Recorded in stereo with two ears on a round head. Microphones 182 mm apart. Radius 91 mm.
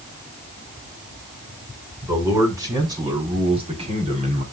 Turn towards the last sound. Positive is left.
turn(degrees=-35)  # may be behind; listen again after turning